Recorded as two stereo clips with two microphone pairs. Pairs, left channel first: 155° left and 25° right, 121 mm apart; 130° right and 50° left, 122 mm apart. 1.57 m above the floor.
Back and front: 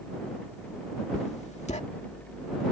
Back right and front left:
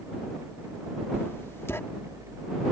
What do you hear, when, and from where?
1.1 s writing: 160° left